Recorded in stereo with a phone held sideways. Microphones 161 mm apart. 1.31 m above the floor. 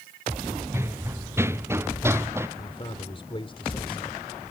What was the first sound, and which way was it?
Running footsteps, 15° right (ahead or behind).